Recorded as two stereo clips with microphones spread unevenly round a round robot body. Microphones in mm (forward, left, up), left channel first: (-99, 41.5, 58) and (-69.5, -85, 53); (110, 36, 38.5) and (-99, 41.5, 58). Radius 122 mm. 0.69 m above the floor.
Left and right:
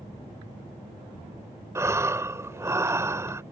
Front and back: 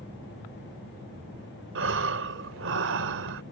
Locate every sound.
1.8 s breathing: 145° right